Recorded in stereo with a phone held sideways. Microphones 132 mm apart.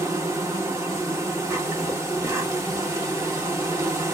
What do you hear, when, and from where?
0.0 s an insect: 20° right (ahead or behind), 1.3 m